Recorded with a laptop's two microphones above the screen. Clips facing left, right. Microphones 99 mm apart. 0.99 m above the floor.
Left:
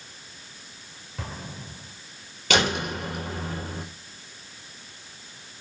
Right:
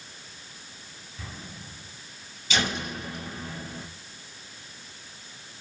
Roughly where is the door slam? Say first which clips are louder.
Left 5 dB; left.